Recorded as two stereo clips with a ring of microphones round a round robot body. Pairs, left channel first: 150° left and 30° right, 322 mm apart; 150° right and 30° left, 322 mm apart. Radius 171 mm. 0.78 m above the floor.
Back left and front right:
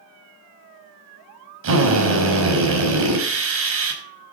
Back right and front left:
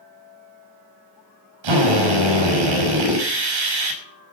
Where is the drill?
20° left, 6 m.